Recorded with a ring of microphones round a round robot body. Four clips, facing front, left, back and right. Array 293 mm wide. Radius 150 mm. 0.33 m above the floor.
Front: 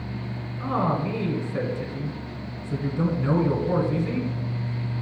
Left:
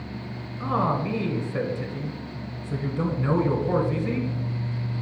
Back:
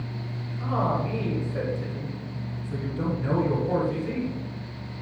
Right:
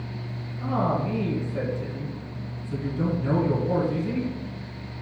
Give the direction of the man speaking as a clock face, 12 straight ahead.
10 o'clock.